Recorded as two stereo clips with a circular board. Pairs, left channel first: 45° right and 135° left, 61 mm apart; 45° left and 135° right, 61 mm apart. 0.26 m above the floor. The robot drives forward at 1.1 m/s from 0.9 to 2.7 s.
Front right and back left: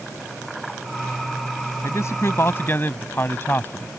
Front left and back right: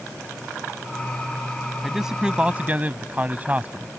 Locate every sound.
1.8 s a man speaking: 50° right; by 3.9 s 80° right